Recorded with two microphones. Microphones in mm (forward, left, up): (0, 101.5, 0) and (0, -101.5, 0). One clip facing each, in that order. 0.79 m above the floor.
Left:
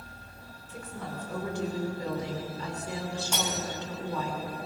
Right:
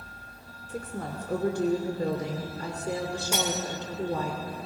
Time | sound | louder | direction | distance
0.7 | a woman speaking | right 4 dB | 45° right (ahead or behind) | 2.5 m
3.3 | cutlery clinking | right 5 dB | 5° right (ahead or behind) | 4 m